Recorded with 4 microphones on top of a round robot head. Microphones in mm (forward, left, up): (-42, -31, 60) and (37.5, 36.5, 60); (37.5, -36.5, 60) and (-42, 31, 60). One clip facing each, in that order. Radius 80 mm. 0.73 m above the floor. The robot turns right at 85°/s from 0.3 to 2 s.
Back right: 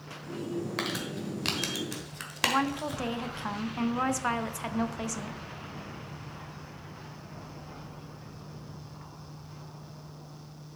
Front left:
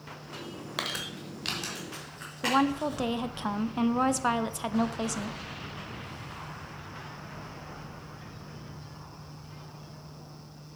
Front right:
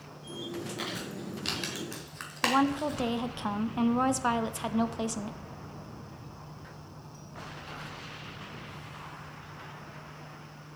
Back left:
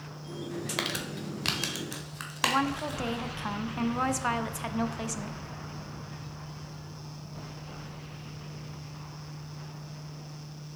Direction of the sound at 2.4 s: 5° right.